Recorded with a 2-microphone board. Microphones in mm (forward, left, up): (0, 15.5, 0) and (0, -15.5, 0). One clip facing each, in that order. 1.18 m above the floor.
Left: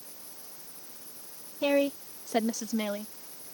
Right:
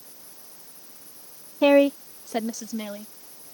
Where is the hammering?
I don't hear hammering.